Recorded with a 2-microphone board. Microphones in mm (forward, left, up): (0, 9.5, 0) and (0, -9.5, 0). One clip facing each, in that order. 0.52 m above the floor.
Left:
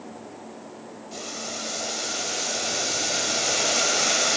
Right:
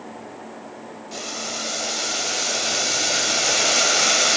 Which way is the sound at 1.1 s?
25° right (ahead or behind).